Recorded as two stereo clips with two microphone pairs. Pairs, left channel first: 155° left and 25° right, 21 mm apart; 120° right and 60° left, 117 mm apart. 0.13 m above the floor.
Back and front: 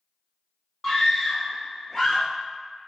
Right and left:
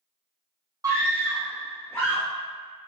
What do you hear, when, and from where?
0.8 s a scream: 95° left, 1.9 m; by 2.3 s 155° right, 1.8 m